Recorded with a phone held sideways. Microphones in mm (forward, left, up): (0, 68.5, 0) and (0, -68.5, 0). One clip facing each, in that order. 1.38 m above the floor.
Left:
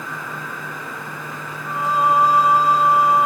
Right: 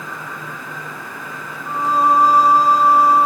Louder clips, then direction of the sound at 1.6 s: Right 2 dB; 35° right (ahead or behind).